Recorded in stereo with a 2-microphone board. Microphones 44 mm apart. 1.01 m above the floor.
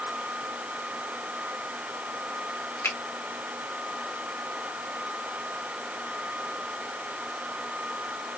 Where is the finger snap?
80° left, 1.7 m.